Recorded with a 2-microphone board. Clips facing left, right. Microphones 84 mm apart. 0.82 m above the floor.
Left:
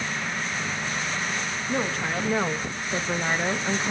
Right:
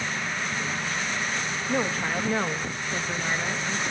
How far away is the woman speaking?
About 1.1 m.